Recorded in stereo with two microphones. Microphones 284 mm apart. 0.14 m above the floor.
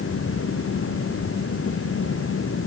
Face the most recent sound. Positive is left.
No sound to turn to.